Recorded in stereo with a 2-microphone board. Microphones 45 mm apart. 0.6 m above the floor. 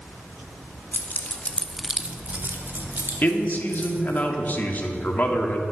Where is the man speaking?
40° left (ahead or behind), 1.3 m.